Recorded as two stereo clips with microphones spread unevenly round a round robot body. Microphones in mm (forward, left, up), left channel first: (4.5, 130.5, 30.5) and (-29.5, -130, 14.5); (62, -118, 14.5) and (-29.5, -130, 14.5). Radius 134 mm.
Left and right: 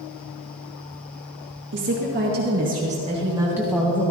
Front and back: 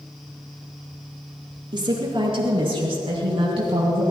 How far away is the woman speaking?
About 4.5 m.